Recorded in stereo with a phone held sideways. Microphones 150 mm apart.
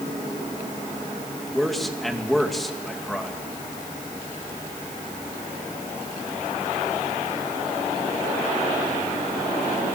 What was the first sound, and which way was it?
A man speaking, centre (ahead or behind).